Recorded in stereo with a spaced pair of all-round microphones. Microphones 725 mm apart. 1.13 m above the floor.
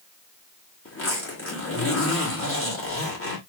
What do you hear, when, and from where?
0.8 s a zipper: 15° left (ahead or behind), 1.9 m